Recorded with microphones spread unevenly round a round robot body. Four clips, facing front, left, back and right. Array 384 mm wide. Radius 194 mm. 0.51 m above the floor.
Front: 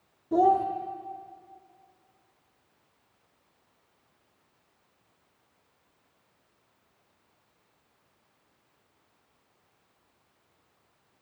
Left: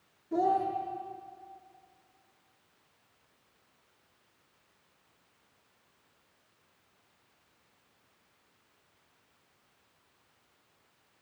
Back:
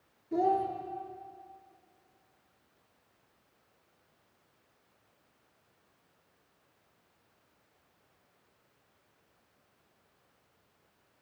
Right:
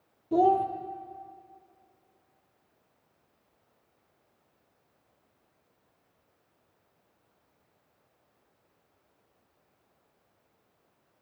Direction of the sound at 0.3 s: 50° right.